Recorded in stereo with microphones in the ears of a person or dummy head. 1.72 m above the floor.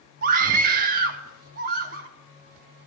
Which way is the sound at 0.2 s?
55° right (ahead or behind).